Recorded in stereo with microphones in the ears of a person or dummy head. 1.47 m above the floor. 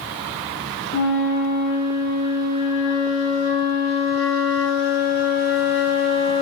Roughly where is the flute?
Left.